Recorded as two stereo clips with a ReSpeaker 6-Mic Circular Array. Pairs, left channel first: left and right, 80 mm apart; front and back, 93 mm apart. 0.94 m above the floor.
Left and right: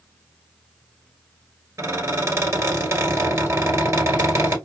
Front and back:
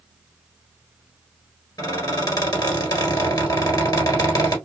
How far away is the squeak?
About 1.7 m.